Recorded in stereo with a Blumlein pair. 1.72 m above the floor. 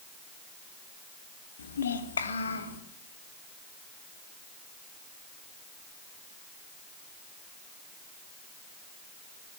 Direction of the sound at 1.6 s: 65° left.